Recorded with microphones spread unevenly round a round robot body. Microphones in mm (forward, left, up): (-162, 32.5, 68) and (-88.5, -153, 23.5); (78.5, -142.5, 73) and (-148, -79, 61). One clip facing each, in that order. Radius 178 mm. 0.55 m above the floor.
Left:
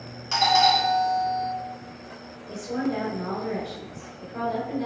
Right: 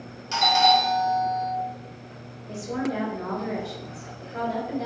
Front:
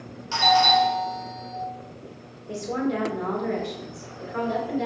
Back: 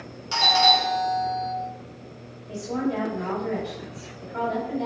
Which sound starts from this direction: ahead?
A woman speaking, at 2.5 s.